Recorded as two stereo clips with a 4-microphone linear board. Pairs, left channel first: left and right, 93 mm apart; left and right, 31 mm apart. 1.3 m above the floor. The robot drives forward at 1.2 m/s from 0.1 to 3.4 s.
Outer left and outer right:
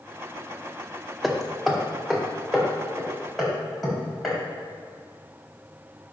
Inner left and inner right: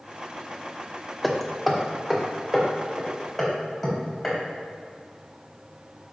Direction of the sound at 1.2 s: Centre (ahead or behind).